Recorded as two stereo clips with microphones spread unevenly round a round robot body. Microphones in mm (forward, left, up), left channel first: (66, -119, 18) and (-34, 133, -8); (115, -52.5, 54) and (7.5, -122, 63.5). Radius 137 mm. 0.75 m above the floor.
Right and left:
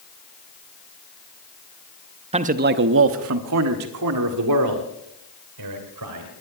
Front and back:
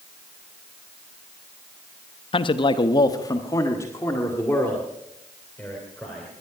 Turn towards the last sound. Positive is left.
turn(degrees=120)